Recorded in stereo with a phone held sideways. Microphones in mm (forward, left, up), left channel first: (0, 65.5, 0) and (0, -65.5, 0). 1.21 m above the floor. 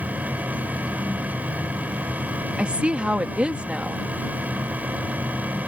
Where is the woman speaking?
10° right (ahead or behind).